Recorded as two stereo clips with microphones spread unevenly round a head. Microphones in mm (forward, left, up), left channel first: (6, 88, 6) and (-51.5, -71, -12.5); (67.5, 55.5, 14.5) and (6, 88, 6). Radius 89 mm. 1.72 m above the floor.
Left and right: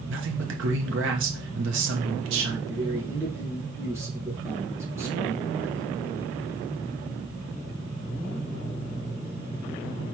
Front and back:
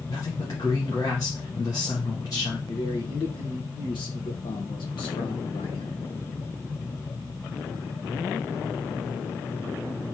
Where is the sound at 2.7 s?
35° right, 1.6 m.